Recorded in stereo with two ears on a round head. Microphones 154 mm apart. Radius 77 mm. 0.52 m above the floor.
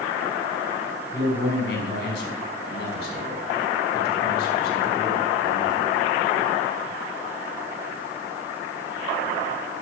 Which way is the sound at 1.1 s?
75° left (ahead or behind).